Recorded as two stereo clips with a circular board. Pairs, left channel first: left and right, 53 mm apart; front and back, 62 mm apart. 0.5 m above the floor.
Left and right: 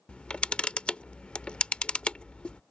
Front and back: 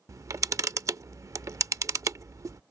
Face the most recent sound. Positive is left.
turn(degrees=160)